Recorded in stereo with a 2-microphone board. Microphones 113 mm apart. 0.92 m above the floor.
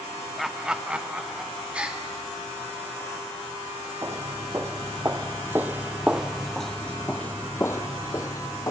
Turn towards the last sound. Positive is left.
turn(degrees=30)  # may be behind; listen again after turning